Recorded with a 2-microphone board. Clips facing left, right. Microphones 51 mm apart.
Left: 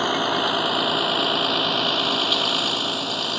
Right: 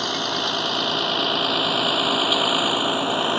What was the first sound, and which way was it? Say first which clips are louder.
A vehicle: left 3 dB; 20° left (ahead or behind).